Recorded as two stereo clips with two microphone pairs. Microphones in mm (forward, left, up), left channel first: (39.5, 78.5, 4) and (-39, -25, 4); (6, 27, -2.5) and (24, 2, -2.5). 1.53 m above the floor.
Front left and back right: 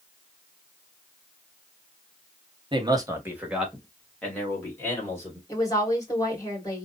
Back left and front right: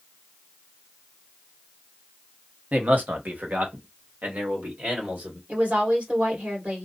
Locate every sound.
2.7 s a man speaking: 80° right, 0.8 m; by 5.4 s 15° right, 2 m
5.5 s a woman speaking: 10° right, 1.8 m